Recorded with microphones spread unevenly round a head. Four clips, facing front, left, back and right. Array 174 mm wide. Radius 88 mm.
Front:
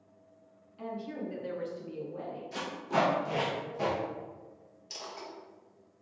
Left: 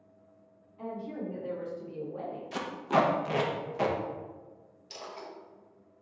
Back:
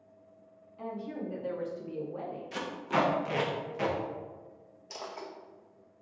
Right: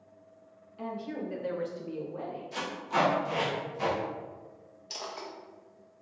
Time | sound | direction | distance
0.8 | a woman speaking | 70° right | 1.9 m
2.5 | tape being pulled | 110° left | 0.7 m
4.9 | a dropped coin | 155° right | 0.6 m